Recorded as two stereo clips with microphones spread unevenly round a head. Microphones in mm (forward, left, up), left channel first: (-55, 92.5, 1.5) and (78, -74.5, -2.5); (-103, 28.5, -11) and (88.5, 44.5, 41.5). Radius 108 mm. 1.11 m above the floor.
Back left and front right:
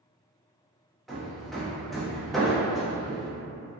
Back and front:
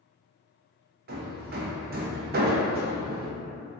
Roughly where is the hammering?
Ahead left.